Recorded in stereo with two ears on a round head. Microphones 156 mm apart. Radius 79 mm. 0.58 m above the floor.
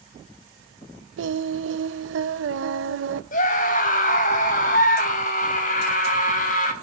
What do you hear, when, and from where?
1.2 s singing: 75° right (ahead or behind), 0.8 m
3.3 s a scream: 45° left (ahead or behind), 4 m